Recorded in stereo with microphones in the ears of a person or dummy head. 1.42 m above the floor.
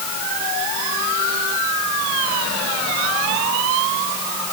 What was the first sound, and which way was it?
Only background noise.